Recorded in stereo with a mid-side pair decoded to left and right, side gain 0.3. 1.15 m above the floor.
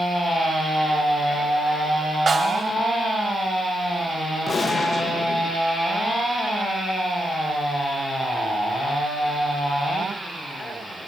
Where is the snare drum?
50° right, 4 m.